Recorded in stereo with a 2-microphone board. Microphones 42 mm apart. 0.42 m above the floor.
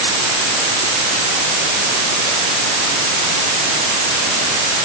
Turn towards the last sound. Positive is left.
No sound to turn to.